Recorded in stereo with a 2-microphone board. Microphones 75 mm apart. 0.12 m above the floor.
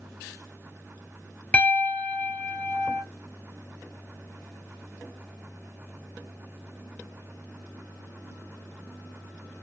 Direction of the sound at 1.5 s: 15° left (ahead or behind).